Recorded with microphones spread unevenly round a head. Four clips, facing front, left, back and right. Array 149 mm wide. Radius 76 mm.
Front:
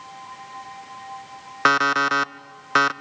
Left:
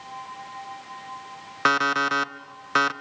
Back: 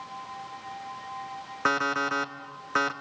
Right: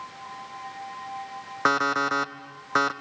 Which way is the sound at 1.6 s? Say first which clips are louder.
Left 1 dB, front 7 dB; 20° right.